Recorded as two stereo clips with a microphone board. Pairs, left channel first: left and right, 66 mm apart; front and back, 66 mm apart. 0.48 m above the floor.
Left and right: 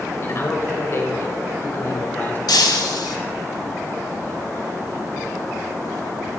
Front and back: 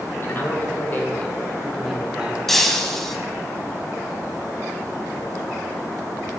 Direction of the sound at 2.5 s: 85° left.